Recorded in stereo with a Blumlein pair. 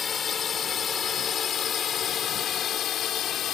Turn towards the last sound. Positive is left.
turn(degrees=30)